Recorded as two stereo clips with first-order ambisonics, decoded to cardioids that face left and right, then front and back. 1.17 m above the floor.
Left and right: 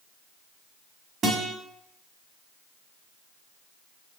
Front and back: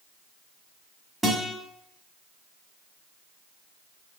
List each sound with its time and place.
1.2 s a guitar: 90° right, 1.1 m